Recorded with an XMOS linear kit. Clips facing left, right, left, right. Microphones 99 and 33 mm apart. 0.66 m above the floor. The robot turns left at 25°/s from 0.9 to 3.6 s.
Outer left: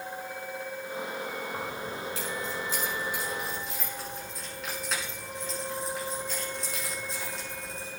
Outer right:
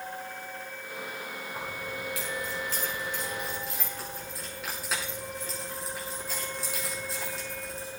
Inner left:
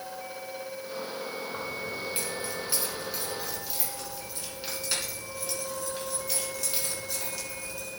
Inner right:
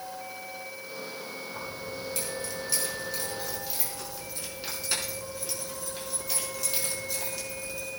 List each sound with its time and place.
1.5 s keys jangling: 50° left (ahead or behind), 5.5 m; by 7.9 s 5° right (ahead or behind), 5.5 m